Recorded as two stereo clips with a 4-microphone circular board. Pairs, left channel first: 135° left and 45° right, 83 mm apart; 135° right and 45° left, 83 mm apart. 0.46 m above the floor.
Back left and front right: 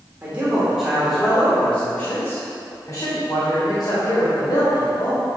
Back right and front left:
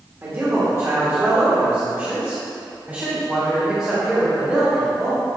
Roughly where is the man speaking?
Ahead.